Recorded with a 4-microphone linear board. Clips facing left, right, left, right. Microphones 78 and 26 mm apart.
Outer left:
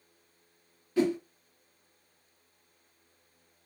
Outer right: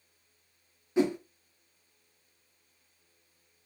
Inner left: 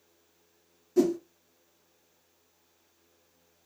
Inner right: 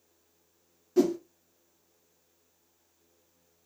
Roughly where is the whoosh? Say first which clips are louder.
Even, even; right.